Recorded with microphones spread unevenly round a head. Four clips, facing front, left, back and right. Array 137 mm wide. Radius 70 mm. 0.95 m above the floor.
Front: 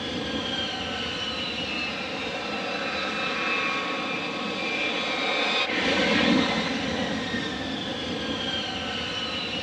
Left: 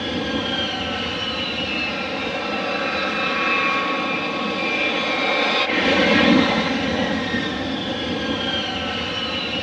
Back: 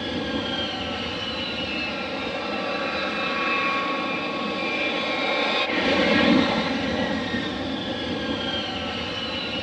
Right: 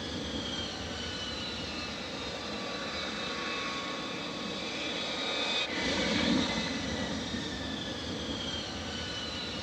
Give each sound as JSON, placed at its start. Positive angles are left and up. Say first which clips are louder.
{"t": 0.0, "sound": "an aircraft", "louder": "left 13 dB, back 3 dB", "azimuth_deg": 105}